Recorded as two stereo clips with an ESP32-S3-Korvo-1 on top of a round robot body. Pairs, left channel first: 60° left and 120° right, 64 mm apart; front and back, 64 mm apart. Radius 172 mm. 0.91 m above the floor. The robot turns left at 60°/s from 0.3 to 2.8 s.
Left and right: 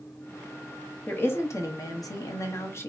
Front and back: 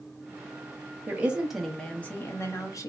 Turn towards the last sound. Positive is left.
turn(degrees=15)